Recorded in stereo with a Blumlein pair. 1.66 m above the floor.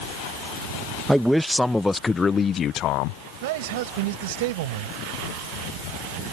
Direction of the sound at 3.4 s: 50° right.